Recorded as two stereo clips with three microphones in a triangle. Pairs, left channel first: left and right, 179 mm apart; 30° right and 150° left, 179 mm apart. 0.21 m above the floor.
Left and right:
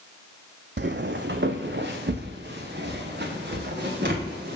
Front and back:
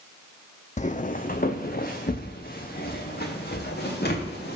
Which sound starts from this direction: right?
Footsteps, at 0.8 s.